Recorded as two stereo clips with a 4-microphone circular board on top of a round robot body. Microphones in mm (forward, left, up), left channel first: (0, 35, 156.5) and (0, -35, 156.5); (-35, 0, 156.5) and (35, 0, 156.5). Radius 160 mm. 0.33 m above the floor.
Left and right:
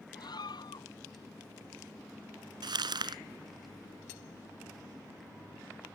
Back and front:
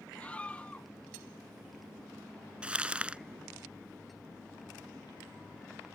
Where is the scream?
105° left.